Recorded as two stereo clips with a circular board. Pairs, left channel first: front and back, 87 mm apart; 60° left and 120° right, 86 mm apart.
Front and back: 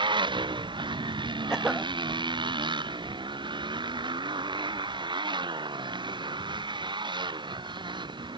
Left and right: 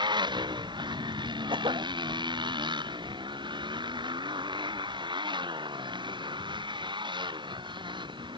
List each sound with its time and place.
0.0 s a motorcycle: 150° right
1.5 s a cough: 100° right